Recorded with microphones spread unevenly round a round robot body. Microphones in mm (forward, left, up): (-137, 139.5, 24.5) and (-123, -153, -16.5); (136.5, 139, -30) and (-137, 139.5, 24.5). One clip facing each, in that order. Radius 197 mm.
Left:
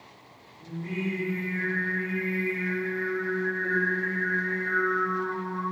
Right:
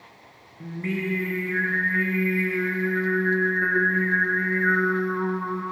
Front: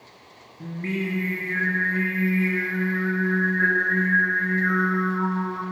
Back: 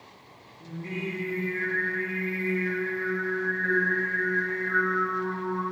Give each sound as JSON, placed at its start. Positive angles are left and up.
{"t": 0.6, "sound": "singing", "azimuth_deg": -50, "distance_m": 6.0}